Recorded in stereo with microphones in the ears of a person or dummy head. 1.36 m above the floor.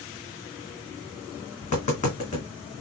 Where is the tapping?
40° left (ahead or behind), 1.7 m.